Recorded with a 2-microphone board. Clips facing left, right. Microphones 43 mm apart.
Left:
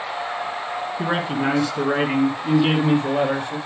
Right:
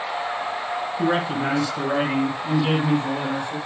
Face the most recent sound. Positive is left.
turn(degrees=50)  # may be behind; listen again after turning